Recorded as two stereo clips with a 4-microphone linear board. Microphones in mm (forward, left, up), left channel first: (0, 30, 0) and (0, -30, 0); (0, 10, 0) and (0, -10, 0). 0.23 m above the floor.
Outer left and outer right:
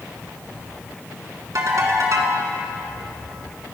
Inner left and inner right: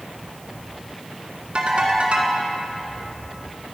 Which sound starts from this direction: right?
A ringtone, at 1.6 s.